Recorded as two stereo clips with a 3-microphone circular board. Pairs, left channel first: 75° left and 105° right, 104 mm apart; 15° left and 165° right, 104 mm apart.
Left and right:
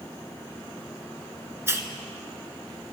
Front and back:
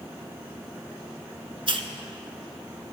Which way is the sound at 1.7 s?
165° right.